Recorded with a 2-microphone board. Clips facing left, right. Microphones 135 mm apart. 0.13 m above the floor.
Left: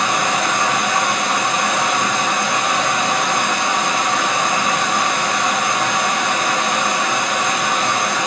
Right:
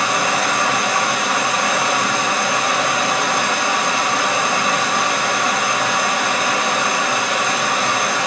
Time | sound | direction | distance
0.0 | running water | 5° right (ahead or behind) | 2 m